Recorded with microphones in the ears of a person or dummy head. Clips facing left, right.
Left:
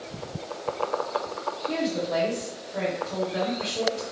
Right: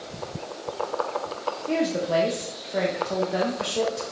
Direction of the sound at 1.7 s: 65° right (ahead or behind).